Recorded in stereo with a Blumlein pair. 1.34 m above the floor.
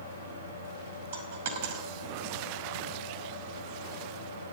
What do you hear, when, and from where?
0.0 s a fan: 70° right, 3 m
1.1 s a dropped coin: 55° right, 2.5 m